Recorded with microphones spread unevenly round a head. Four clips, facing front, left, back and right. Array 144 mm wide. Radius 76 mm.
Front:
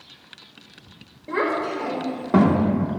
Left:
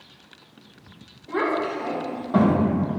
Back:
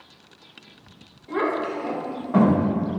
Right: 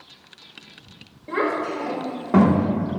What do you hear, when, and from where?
1.3 s a child speaking: 35° right, 4 m